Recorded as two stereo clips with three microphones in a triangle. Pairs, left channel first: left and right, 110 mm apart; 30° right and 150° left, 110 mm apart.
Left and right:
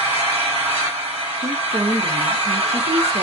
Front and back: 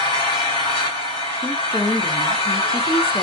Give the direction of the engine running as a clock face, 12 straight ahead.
2 o'clock.